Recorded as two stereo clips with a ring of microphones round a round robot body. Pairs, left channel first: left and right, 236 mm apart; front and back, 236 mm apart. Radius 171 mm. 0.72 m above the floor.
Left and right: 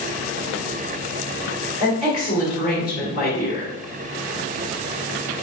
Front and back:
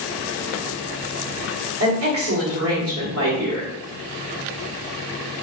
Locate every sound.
1.8 s a woman speaking: 160° left, 1.7 m